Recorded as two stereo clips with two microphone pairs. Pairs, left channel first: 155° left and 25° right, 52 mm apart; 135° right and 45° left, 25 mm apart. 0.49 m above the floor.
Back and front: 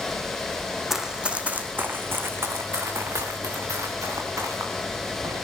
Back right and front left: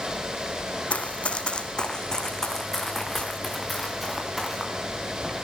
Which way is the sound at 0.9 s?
110° right.